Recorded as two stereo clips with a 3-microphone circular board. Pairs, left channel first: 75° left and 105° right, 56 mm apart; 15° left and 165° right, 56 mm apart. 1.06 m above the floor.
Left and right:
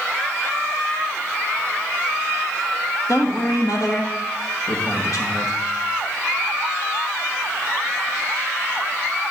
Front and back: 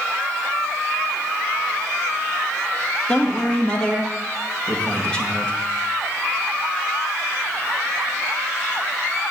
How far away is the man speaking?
About 1.4 m.